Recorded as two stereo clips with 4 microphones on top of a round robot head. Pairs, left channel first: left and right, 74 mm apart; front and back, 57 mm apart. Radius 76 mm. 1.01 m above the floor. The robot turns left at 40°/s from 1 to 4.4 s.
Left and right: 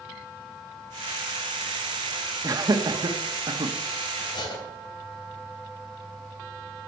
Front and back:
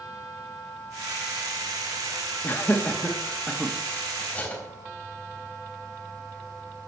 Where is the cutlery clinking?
70° left, 3.5 m; by 4.6 s 65° left, 3.5 m.